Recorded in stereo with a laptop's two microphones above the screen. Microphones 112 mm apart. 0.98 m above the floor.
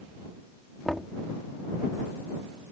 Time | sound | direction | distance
0.8 | knocking | 5° left (ahead or behind) | ?